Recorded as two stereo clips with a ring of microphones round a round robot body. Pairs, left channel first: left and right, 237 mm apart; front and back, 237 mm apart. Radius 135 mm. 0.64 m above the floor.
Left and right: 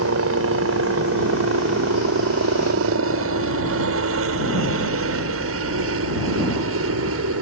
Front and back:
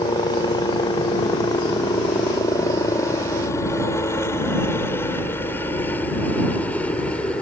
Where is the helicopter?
75° right; by 7.4 s 85° right.